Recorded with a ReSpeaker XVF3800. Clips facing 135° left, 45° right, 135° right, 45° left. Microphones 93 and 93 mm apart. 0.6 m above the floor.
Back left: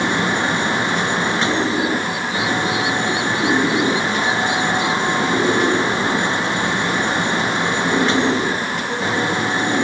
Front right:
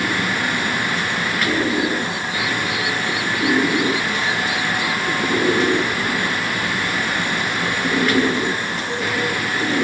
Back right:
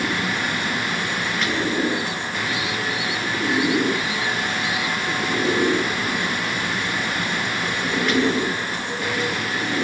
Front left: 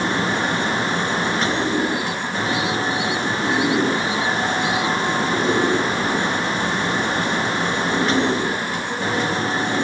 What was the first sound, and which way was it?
Only background noise.